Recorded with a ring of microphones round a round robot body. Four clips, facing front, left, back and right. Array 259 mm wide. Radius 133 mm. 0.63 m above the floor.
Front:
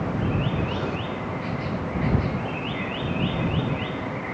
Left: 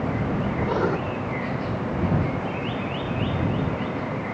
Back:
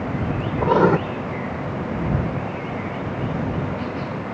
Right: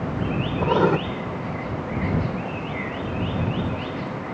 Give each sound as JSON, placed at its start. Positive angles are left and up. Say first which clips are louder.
{"t": 0.6, "sound": "writing", "louder": "right 6 dB, back 12 dB", "azimuth_deg": -160}